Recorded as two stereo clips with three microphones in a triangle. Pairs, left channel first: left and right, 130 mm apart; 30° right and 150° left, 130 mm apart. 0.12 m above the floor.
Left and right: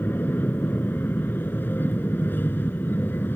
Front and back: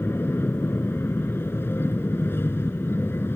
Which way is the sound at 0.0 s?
30° left.